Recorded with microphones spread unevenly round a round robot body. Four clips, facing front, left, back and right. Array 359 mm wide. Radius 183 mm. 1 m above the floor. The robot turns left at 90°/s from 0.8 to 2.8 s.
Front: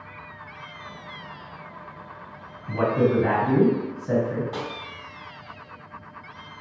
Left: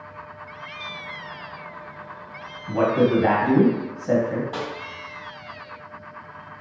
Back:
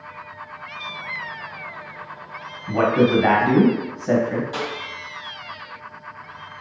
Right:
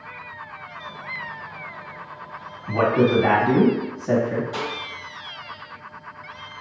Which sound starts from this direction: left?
A snare drum, at 4.5 s.